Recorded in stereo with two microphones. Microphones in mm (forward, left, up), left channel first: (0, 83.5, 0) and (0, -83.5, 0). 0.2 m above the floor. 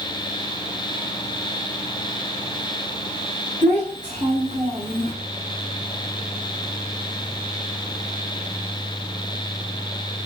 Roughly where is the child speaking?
Right.